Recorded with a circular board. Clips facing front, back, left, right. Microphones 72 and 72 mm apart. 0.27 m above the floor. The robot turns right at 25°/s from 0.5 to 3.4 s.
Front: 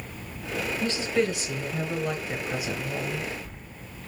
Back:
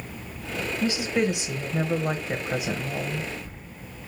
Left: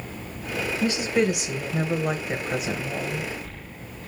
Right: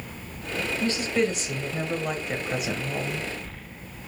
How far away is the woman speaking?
About 0.9 m.